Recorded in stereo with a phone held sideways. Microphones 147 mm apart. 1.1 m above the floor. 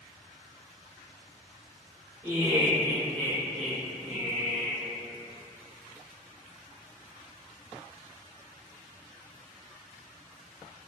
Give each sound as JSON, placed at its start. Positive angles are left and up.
{"t": 2.2, "sound": "laughter", "side_deg": 30, "distance_m": 1.1}